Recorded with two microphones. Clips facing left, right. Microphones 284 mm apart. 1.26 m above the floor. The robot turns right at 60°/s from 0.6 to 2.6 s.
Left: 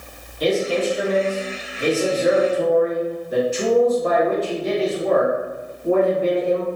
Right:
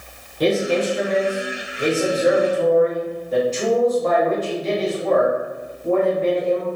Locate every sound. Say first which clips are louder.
0.4 s a man speaking: right 1 dB; 110° right, 1.2 m; by 6.7 s 10° left, 1.2 m